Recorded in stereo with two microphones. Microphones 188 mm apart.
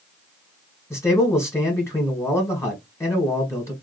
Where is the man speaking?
15° left (ahead or behind), 1.3 m.